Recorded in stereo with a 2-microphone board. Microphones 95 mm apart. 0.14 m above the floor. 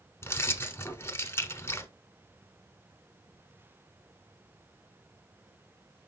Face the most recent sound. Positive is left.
turn(degrees=25)  # may be behind; listen again after turning